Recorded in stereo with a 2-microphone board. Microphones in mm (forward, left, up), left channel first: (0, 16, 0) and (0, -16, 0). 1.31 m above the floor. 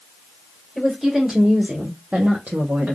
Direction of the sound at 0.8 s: 10° right (ahead or behind).